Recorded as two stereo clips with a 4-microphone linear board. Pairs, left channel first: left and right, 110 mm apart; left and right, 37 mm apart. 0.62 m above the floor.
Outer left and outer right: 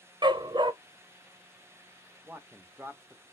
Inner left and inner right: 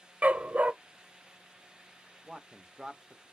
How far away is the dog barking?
About 0.5 m.